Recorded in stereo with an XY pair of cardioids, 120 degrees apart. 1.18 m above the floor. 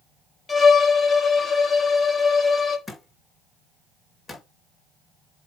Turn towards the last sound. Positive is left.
turn(degrees=10)